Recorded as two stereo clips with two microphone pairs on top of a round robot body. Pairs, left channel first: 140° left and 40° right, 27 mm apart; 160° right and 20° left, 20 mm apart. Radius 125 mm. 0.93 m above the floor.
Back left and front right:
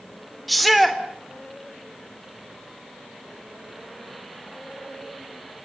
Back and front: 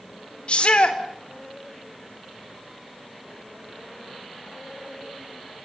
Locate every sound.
0.5 s a shout: 135° right, 4 m